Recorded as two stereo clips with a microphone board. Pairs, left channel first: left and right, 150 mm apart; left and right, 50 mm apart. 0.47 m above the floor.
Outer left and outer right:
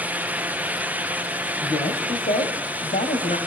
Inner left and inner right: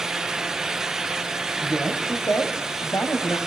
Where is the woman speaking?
60° left (ahead or behind), 3 m; by 3.4 s 70° left (ahead or behind), 2.5 m.